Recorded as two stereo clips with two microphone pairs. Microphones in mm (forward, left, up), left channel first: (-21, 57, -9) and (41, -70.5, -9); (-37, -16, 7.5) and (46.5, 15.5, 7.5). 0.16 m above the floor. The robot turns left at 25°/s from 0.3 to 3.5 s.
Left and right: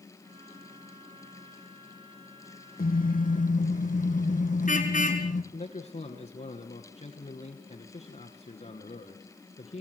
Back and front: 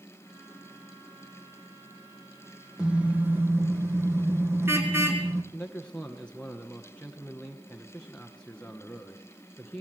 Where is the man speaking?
125° left, 1.5 m.